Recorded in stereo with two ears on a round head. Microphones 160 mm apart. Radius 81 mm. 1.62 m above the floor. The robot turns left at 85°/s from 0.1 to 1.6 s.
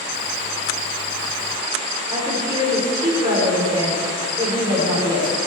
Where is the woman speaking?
25° right (ahead or behind), 4 m.